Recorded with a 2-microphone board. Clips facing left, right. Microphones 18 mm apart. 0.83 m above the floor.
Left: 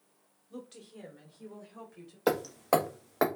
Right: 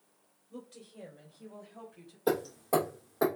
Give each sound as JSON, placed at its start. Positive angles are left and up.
{"t": 0.5, "sound": "a woman speaking", "side_deg": 65, "distance_m": 1.9}
{"t": 2.3, "sound": "hammering", "side_deg": 60, "distance_m": 1.1}